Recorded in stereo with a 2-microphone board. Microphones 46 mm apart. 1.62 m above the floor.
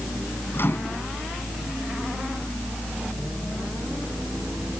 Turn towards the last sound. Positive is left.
turn(degrees=50)  # may be behind; listen again after turning